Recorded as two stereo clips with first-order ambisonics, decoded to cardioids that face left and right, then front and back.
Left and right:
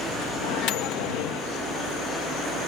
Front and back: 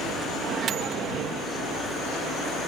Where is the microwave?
125° left.